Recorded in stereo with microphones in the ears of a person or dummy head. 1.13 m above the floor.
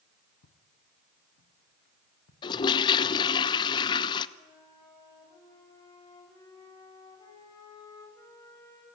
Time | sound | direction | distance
0.4 | footsteps | 65° left (ahead or behind) | 3 m
2.4 | a toilet flushing | 30° left (ahead or behind) | 0.9 m
4.4 | a flute | 25° left (ahead or behind) | 8 m